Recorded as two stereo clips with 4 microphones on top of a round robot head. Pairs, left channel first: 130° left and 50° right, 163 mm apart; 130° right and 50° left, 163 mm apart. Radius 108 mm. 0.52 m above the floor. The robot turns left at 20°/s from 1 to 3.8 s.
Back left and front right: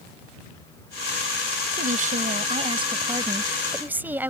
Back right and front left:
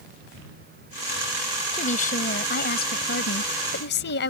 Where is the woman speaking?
85° right; by 4.3 s 125° right.